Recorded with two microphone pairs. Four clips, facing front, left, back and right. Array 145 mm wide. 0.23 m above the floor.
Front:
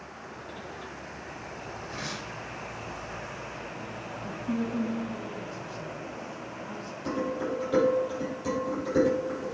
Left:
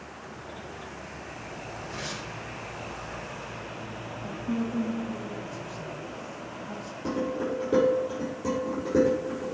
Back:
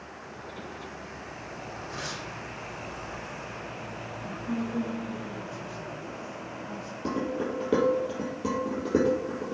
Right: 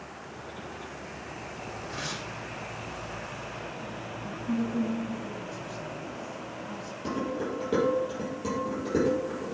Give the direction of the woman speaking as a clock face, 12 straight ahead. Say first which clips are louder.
Even, front 1 dB; 8 o'clock.